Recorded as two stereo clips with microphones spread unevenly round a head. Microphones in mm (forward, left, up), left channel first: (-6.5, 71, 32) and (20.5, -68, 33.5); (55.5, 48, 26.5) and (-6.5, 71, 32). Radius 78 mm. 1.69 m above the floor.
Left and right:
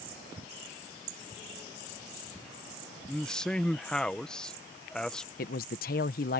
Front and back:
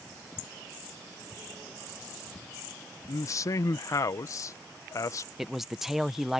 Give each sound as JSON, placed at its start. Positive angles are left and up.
{"t": 3.1, "sound": "a man speaking", "azimuth_deg": 15}
{"t": 5.4, "sound": "a man speaking", "azimuth_deg": 75}